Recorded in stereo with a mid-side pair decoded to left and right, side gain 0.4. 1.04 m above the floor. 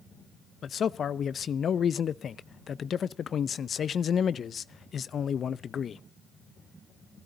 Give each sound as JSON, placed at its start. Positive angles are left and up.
{"t": 0.6, "sound": "a man speaking", "azimuth_deg": 55, "distance_m": 0.6}